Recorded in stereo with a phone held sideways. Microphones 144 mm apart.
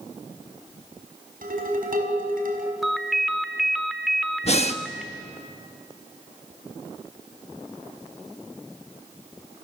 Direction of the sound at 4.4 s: 45° left (ahead or behind).